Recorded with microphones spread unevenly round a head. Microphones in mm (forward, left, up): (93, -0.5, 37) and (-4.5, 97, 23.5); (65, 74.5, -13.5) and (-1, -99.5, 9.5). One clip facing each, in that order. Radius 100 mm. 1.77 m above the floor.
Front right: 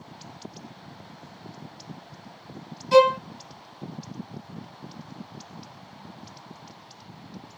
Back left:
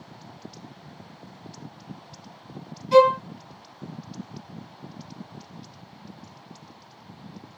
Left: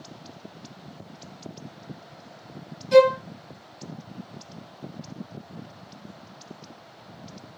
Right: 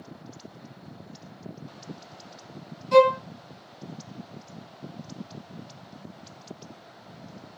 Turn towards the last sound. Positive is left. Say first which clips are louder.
# back left 1 dB, left 2 dB
turn(degrees=-5)